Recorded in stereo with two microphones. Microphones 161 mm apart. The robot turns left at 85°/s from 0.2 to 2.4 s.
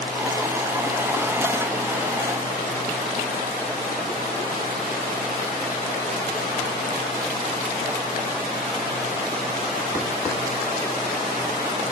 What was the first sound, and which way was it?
Only background noise.